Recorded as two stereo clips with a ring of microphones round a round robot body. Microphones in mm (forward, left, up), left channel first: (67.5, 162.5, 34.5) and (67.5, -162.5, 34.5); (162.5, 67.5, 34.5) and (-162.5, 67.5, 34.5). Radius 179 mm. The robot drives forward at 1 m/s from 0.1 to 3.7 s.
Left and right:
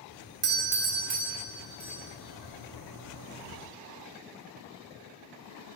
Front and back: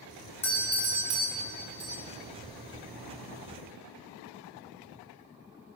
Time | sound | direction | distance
0.4 | a doorbell | 75° right | 0.9 m